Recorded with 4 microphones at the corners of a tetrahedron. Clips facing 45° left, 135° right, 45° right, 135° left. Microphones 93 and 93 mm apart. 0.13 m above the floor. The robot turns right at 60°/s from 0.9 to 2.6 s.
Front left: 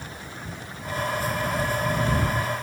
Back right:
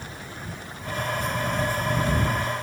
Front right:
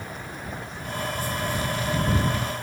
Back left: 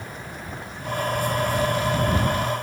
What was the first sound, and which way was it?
Only background noise.